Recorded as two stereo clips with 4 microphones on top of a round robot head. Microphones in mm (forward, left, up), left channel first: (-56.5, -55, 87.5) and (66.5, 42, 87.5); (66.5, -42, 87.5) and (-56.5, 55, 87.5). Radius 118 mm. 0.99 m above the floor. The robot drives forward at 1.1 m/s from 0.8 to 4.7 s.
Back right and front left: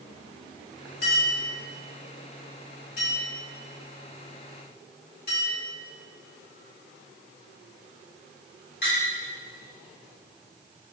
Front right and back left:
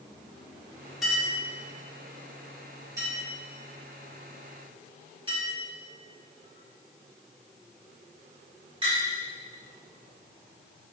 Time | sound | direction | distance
1.0 | a clink | 130° right | 3.5 m